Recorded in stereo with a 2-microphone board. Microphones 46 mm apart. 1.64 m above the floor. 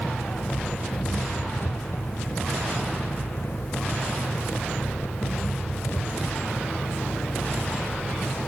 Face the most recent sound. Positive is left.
turn(degrees=60)  # may be behind; listen again after turning